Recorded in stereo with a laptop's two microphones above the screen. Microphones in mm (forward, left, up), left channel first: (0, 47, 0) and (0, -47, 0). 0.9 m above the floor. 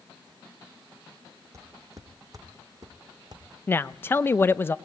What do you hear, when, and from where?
1.5 s footsteps: 35° right (ahead or behind), 2 m; by 4.5 s 50° right (ahead or behind), 4 m
3.7 s a woman speaking: 25° left (ahead or behind), 0.5 m